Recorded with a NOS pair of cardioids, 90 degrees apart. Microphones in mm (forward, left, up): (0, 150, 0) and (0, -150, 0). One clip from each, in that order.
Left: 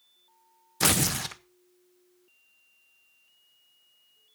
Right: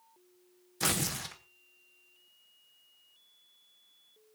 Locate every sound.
0.8 s tearing paper: 35° left, 0.7 m